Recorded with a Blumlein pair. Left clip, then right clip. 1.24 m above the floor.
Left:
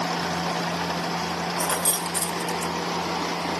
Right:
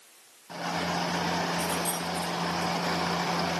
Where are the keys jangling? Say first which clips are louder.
Left 4 dB; 25° left, 1.0 m; by 2.7 s 65° left, 0.5 m.